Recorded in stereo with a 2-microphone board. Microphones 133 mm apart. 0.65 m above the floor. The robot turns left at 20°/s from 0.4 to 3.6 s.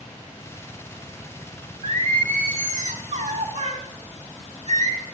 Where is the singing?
80° right, 1.4 m; by 5.0 s 115° right, 1.4 m.